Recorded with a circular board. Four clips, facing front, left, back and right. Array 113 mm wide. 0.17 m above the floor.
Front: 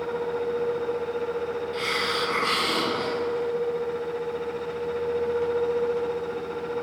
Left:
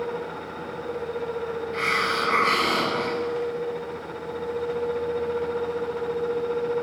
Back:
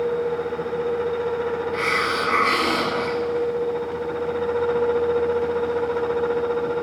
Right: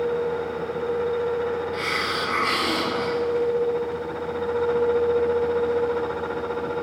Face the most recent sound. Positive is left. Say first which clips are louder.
# left 1 dB, back 5 dB
turn(degrees=150)